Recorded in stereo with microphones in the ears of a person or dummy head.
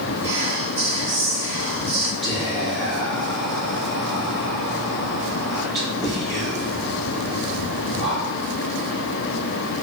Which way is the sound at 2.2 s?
20° left (ahead or behind).